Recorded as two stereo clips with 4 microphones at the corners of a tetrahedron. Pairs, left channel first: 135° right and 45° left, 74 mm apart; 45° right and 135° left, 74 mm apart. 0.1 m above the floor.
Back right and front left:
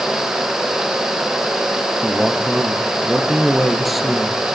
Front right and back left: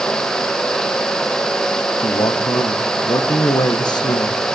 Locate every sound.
2.0 s a man speaking: 45° right, 4 m